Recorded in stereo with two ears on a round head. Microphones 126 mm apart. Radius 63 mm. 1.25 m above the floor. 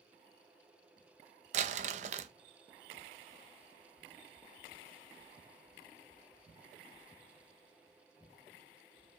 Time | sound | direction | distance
1.5 | crumpling | 50° right (ahead or behind) | 0.5 m